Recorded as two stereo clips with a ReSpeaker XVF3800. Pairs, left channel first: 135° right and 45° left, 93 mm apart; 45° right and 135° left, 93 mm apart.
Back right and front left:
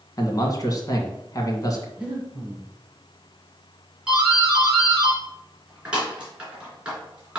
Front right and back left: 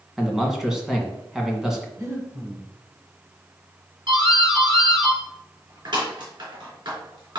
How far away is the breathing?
About 1.8 m.